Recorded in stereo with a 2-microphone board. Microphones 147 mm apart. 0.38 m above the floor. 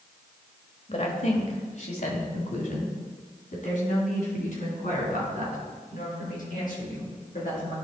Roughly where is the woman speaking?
Left.